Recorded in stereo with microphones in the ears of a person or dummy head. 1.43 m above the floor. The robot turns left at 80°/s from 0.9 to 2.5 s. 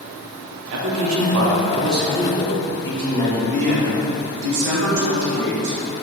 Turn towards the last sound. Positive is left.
turn(degrees=-65)  # may be behind; listen again after turning